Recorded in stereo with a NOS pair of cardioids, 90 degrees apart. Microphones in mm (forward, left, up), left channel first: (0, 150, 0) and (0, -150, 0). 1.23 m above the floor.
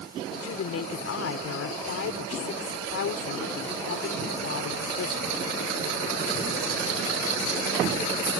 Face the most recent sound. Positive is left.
turn(degrees=60)